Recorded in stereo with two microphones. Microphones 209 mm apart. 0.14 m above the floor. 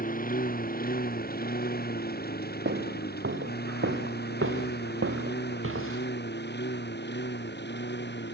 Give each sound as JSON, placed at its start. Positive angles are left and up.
{"t": 0.0, "sound": "a lawn mower", "side_deg": 40}
{"t": 2.6, "sound": "footsteps", "side_deg": -60}